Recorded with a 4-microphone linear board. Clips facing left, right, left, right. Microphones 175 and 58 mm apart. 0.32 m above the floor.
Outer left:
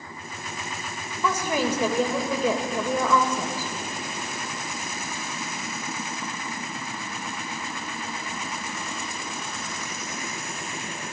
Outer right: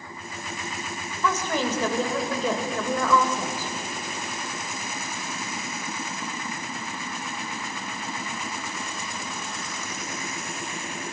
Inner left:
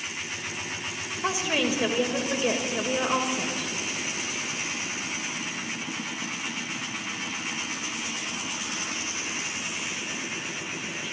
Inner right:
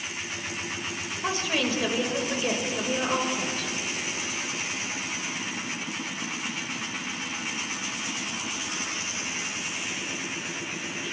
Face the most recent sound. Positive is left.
turn(degrees=15)  # may be behind; listen again after turning